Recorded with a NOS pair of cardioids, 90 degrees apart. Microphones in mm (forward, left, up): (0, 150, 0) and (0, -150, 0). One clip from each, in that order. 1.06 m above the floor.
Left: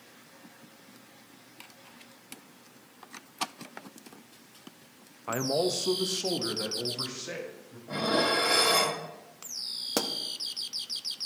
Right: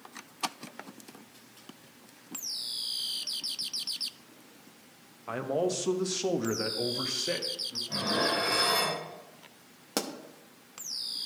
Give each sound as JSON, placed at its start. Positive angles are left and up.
{"t": 5.3, "sound": "a man speaking", "azimuth_deg": 20, "distance_m": 0.7}
{"t": 7.9, "sound": "dishes clattering", "azimuth_deg": 55, "distance_m": 1.9}
{"t": 10.0, "sound": "a pop", "azimuth_deg": 10, "distance_m": 0.7}